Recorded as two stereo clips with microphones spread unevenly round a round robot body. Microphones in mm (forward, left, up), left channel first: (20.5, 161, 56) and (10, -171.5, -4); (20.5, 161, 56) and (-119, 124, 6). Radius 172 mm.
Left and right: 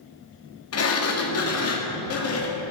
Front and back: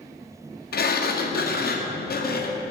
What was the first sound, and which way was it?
A sliding door, 35° left.